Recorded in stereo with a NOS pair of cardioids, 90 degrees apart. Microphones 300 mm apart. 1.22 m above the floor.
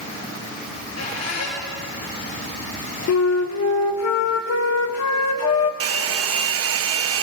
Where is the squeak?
65° left, 9 m.